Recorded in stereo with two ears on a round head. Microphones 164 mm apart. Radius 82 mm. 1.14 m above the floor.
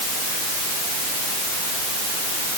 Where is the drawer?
I don't hear a drawer.